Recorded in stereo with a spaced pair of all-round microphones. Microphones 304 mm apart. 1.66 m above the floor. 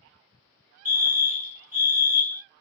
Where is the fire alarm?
25° right (ahead or behind), 0.9 m.